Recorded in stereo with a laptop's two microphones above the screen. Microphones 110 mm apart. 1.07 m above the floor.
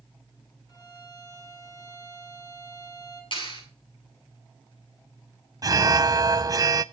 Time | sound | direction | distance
0.7 | a violin | 40° left (ahead or behind) | 3 m
3.3 | a clap | 55° left (ahead or behind) | 8.5 m
5.6 | an alarm | 35° right (ahead or behind) | 0.5 m